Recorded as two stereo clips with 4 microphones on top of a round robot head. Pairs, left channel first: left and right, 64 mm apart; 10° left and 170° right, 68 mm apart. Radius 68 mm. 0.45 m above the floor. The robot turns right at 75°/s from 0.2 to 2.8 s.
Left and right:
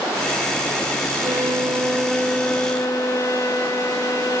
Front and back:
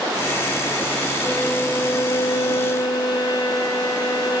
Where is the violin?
75° right, 0.6 m; by 4.4 s 45° left, 0.6 m.